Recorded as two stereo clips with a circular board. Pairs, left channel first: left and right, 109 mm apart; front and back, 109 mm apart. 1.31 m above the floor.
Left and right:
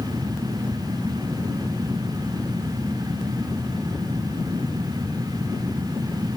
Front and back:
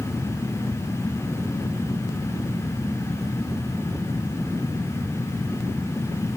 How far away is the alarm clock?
I don't hear an alarm clock.